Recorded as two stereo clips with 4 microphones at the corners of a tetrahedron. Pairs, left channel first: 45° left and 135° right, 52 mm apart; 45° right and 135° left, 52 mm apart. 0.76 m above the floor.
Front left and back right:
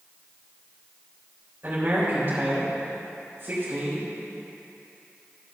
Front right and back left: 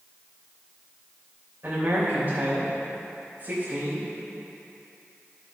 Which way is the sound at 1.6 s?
170° left.